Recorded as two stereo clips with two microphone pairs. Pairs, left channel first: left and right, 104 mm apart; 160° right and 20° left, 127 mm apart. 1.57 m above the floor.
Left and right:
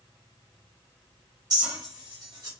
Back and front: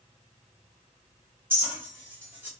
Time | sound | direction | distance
1.5 | a clink | 50° right | 1.2 m